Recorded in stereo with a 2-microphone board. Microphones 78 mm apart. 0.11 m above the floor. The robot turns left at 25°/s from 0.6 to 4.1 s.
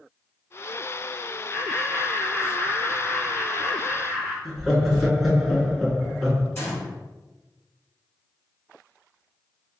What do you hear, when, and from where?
1.5 s laughter: 140° left, 1.5 m; by 4.3 s 75° left, 1.5 m
4.5 s laughter: centre (ahead or behind), 1.2 m
6.5 s a gunshot: 30° left (ahead or behind), 1.7 m